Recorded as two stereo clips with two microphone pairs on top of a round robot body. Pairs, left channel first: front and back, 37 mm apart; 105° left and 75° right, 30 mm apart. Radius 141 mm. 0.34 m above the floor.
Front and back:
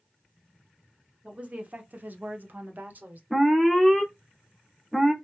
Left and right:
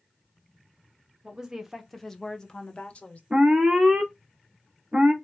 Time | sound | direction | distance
1.2 | a woman speaking | 125° right | 1.2 m
3.3 | an alarm | 85° right | 1.7 m